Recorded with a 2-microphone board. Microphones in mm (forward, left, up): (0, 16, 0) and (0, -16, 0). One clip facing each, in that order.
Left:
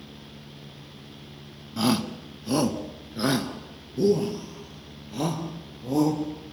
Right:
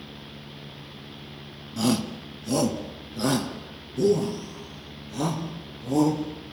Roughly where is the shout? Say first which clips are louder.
Even; left.